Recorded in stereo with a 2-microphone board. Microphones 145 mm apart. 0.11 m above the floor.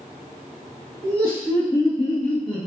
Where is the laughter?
40° left (ahead or behind), 1.9 m; by 2.7 s 35° left (ahead or behind), 2 m.